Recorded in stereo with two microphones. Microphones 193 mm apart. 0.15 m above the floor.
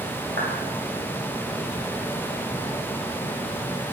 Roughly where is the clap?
Right.